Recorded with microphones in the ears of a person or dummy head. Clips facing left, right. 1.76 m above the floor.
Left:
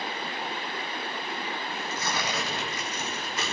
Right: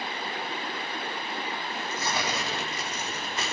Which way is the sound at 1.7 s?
20° right (ahead or behind).